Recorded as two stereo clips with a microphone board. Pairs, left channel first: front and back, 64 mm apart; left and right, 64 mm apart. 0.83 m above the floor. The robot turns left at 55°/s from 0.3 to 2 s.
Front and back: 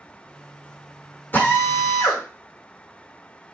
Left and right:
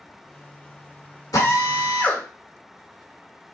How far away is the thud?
I don't hear a thud.